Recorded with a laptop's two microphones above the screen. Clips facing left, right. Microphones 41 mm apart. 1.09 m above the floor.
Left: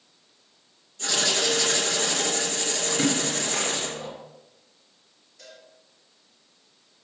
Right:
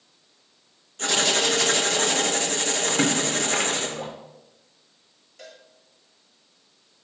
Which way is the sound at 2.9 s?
60° right (ahead or behind).